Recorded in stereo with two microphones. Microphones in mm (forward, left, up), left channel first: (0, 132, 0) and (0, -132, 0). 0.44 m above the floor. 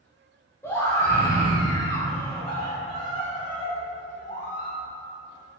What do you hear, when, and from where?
0.6 s a scream: 10° left (ahead or behind), 2 m; by 4.8 s 30° left (ahead or behind), 1.7 m